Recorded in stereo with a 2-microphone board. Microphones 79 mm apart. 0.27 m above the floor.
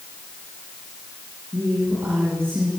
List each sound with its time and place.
1.5 s a woman speaking: 30° right (ahead or behind), 7.5 m